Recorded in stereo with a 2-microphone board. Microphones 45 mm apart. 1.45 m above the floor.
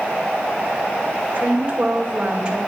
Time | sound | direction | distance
1.3 | a woman speaking | 35° right (ahead or behind) | 2.5 m